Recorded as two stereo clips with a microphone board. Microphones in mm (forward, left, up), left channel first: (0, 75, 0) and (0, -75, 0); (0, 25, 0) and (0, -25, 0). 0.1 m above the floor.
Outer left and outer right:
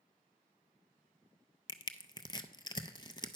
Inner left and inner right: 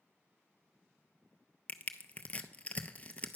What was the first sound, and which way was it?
Crushing, 30° left (ahead or behind).